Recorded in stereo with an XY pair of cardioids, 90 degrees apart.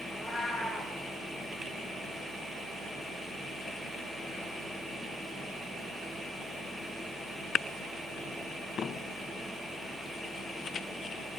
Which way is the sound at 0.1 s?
35° left.